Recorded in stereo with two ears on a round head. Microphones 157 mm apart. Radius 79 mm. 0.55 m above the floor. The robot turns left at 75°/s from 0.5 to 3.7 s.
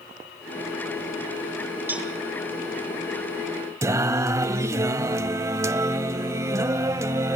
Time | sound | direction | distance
1.9 | a cowbell | 10° right (ahead or behind) | 1.6 m
3.8 | singing | 15° right (ahead or behind) | 0.6 m